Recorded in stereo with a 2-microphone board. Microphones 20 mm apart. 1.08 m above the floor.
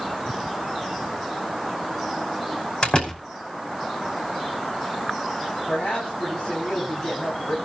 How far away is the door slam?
About 5 m.